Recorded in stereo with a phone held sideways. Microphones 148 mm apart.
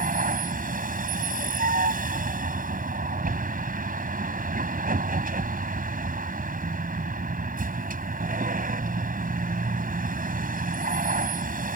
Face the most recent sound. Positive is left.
turn(degrees=-65)  # may be behind; listen again after turning